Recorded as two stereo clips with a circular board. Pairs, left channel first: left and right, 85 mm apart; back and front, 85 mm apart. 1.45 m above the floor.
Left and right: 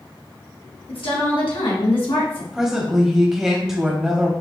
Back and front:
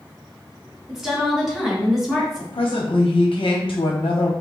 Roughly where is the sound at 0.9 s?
Left.